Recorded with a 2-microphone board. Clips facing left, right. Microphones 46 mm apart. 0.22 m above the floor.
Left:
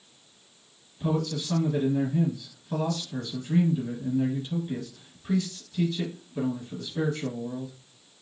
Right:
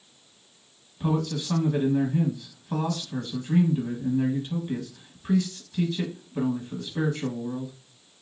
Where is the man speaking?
25° right (ahead or behind), 1.4 m.